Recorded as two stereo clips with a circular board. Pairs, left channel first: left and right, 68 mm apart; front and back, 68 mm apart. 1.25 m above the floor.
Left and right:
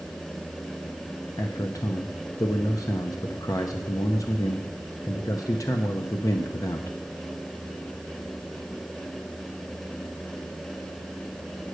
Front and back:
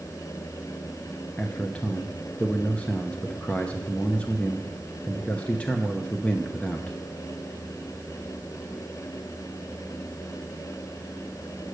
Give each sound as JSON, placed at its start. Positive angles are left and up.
{"t": 1.4, "sound": "a man speaking", "azimuth_deg": 70, "distance_m": 0.8}